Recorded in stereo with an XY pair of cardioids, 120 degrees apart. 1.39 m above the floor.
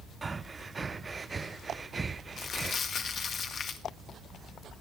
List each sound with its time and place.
0.2 s breathing: 25° right, 0.7 m
2.4 s crumpling: 45° left, 1.9 m